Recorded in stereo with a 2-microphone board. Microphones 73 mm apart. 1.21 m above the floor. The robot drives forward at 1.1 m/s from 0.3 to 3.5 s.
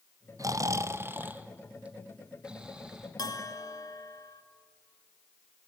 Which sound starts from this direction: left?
A bell, at 3.2 s.